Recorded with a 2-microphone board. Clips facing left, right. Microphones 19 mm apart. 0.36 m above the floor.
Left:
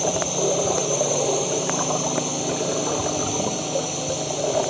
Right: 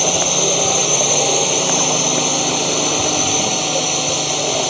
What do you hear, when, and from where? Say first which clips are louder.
0.0 s a drone: right 6 dB; 55° right (ahead or behind)